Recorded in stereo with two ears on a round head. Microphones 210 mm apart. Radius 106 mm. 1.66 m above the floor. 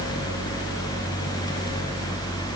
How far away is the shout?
No shout in this recording.